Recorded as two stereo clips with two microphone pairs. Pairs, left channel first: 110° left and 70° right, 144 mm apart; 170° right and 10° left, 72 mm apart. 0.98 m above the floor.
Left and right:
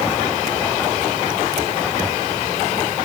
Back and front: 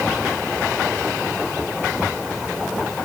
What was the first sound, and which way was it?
Only background noise.